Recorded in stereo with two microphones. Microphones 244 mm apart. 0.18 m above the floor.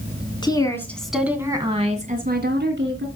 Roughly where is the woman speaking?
Centre.